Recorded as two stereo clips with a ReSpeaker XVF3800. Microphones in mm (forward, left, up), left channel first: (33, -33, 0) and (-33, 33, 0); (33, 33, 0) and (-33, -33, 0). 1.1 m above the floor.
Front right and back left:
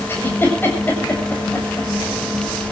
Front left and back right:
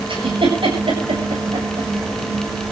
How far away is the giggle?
About 7.5 m.